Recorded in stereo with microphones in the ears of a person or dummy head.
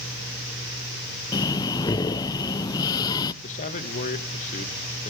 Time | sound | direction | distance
1.3 | breathing | 20° left (ahead or behind) | 0.6 m
3.4 | a man speaking | 40° left (ahead or behind) | 1.6 m